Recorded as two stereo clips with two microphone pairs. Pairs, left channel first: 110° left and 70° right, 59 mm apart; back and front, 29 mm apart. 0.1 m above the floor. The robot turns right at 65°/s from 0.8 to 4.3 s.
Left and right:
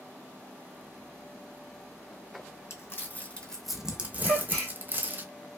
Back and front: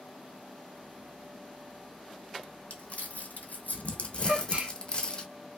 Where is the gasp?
25° left, 1.6 m; by 4.7 s 30° left, 1.6 m.